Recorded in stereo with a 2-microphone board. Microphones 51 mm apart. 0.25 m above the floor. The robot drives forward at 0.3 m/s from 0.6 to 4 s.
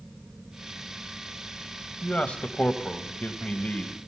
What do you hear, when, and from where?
2.0 s a man speaking: 25° left (ahead or behind), 1.0 m; by 4.0 s 20° left (ahead or behind), 1.0 m